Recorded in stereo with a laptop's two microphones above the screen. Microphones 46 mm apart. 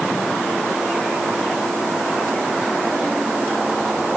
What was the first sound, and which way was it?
Only background noise.